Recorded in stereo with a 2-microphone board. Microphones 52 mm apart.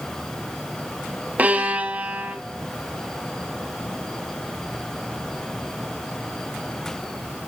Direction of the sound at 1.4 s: 30° right (ahead or behind).